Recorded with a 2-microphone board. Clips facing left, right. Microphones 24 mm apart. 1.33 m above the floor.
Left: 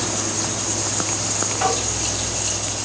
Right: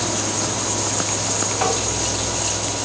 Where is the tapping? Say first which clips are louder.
Left 1 dB; 20° right (ahead or behind), 1.6 m.